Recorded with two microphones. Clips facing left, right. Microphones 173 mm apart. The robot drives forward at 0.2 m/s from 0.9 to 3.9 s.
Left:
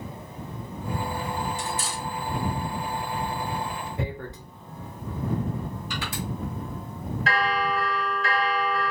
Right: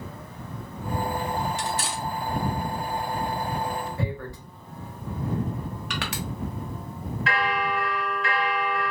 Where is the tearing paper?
20° left (ahead or behind), 0.9 m.